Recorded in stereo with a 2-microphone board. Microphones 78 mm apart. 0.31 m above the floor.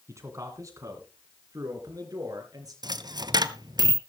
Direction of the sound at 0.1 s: 40° right (ahead or behind).